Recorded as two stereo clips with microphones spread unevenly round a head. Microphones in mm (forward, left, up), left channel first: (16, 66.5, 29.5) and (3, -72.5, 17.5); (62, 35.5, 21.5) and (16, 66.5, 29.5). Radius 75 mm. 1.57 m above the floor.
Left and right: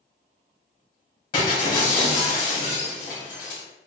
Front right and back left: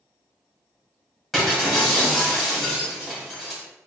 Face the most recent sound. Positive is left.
turn(degrees=60)